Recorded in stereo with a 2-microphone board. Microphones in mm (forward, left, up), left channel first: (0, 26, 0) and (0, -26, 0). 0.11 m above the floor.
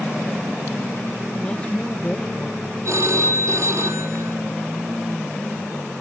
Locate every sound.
1.4 s a woman speaking: 25° left (ahead or behind), 2.5 m; by 2.7 s 15° left (ahead or behind), 3.5 m
2.9 s a phone ringing: 65° right (ahead or behind), 3 m